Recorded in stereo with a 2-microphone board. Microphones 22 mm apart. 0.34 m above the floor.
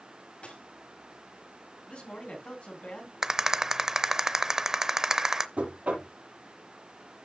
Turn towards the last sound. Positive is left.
turn(degrees=-85)